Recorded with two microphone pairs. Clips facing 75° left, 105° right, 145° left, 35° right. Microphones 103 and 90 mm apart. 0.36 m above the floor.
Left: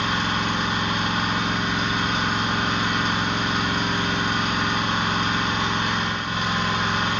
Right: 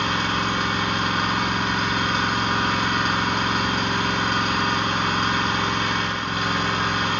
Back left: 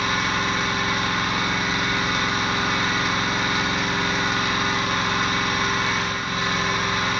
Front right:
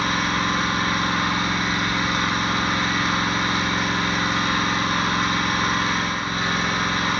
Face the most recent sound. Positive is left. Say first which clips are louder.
# right 1 dB, front right 1 dB
turn(degrees=-85)